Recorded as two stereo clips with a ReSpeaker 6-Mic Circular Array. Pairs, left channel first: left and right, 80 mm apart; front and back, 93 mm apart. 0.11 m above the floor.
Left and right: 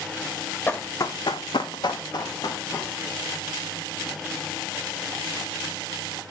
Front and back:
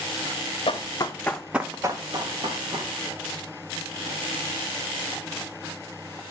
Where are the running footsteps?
25° left, 0.8 m; by 2.9 s 140° left, 1.8 m.